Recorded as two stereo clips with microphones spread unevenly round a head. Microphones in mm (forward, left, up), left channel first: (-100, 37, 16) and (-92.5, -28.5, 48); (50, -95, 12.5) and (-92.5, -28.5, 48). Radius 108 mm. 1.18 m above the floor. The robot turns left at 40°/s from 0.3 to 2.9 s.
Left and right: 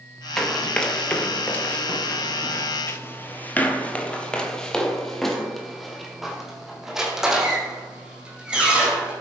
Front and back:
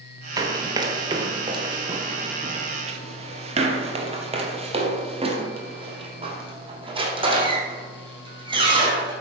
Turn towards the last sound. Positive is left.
turn(degrees=-150)